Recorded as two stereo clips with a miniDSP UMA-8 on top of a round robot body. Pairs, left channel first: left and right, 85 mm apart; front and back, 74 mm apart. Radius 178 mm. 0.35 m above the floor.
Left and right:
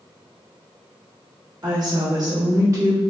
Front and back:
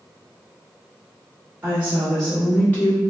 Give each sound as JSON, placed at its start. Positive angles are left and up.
{"t": 1.6, "sound": "a woman speaking", "azimuth_deg": -115, "distance_m": 1.2}